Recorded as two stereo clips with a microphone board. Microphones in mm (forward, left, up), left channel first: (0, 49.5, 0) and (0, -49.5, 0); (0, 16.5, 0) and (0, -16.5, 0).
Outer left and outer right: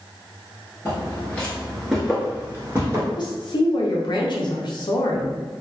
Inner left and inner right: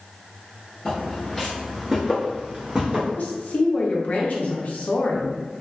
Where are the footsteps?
25° left (ahead or behind), 1.2 m; by 3.1 s 35° right (ahead or behind), 1.2 m.